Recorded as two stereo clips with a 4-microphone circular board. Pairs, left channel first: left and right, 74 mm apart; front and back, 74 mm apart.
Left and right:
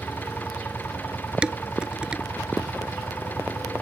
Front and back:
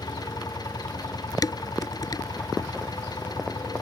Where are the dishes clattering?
15° right.